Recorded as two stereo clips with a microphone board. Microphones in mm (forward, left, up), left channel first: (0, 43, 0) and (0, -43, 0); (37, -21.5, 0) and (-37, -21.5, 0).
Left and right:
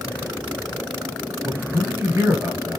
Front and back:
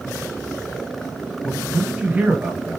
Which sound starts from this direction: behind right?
A man speaking, at 1.4 s.